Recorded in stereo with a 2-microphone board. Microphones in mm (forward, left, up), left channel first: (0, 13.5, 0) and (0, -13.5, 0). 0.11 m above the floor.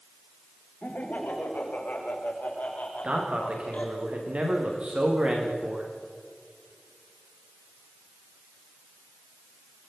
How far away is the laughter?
About 8 m.